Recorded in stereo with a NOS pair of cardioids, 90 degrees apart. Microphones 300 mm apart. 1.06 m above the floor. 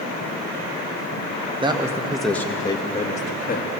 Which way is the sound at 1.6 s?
15° right.